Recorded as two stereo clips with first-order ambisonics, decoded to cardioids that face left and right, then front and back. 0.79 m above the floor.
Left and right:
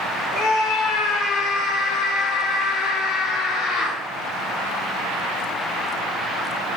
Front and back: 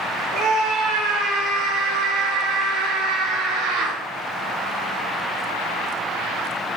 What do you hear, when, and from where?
0.3 s a scream: 135° left, 7.5 m; by 4.0 s 145° left, 11.5 m